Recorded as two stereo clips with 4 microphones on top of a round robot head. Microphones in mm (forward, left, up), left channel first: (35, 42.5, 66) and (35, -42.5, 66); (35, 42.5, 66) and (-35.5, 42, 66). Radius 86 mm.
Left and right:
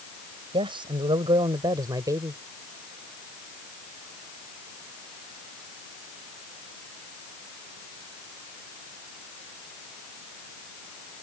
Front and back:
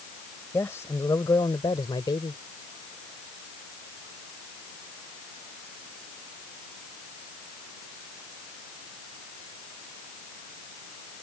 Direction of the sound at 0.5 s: 65° right.